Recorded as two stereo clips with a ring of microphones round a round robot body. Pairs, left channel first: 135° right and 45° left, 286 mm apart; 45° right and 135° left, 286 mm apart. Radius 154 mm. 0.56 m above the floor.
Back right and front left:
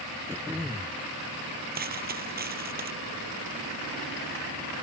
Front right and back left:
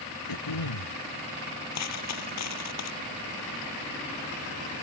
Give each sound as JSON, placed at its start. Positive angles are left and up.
{"t": 0.3, "sound": "throat clearing", "azimuth_deg": -35}
{"t": 1.8, "sound": "a dropped coin", "azimuth_deg": -15}